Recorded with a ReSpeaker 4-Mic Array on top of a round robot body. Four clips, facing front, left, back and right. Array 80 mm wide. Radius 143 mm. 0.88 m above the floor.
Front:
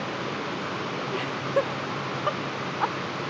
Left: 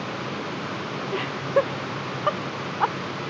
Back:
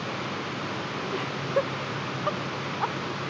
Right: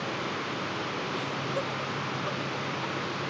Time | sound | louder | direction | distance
1.1 | laughter | left 13 dB, front 1 dB | 80° left | ?